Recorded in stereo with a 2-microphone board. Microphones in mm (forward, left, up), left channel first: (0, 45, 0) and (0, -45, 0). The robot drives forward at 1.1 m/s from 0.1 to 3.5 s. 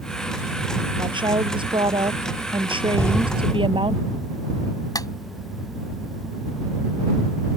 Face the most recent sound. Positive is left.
turn(degrees=45)  # may be behind; listen again after turning